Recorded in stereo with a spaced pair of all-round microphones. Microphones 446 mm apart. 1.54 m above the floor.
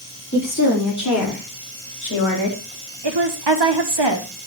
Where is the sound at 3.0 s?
65° right (ahead or behind), 1.2 m.